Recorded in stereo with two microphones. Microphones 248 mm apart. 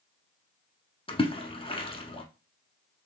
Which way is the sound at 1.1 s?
20° left (ahead or behind).